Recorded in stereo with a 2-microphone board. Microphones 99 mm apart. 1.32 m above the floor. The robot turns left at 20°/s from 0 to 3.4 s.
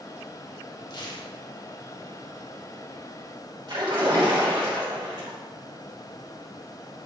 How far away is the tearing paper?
About 1.1 m.